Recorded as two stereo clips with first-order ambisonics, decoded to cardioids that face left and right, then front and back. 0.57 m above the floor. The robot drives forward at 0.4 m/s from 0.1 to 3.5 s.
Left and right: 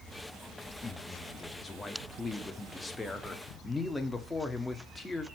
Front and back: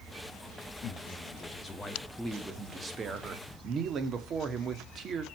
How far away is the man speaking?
About 1.1 m.